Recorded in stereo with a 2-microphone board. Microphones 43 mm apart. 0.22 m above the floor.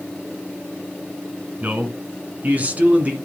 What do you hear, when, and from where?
1.6 s a man speaking: 35° right (ahead or behind), 2.0 m